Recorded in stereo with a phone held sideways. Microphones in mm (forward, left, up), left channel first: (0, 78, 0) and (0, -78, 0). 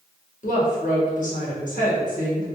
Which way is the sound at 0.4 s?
55° left (ahead or behind).